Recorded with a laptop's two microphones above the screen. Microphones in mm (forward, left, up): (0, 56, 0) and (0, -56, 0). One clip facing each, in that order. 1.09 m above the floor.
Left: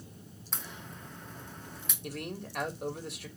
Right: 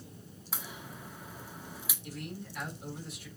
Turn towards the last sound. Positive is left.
turn(degrees=65)  # may be behind; listen again after turning